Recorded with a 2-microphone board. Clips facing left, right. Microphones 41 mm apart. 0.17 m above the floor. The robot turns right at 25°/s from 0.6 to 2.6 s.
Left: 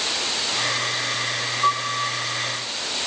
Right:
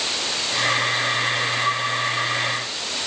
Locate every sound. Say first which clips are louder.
1.6 s a piano: even; 50° left (ahead or behind), 6 m; by 2.2 s 40° left (ahead or behind), 6 m